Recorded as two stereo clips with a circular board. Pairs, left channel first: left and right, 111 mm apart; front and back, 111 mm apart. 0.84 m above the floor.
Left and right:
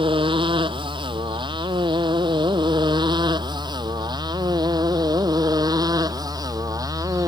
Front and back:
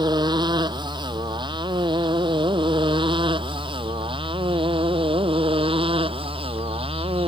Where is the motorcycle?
130° right; by 7.3 s 145° right.